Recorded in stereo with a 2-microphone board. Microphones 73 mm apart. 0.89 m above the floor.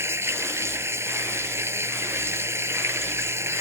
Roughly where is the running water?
Right.